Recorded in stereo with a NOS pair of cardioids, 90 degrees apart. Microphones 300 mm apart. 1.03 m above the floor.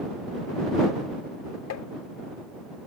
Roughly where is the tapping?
Ahead left.